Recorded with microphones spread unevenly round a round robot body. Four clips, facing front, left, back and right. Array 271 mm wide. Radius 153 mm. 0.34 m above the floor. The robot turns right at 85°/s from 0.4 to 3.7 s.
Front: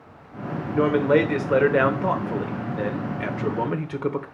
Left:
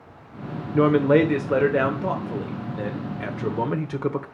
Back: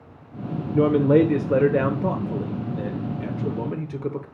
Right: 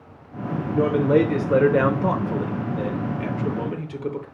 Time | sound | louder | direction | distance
0.7 | a man speaking | left 1 dB, back 2 dB | 150° left | 0.9 m